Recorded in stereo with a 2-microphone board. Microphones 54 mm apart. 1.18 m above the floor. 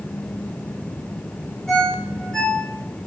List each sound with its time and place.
1.7 s a ringtone: 10° left (ahead or behind), 1.9 m